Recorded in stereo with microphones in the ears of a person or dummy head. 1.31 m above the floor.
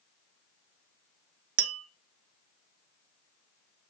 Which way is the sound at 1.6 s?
75° right (ahead or behind).